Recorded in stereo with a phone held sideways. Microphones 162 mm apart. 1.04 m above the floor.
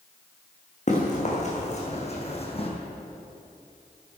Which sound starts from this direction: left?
Running footsteps, at 0.9 s.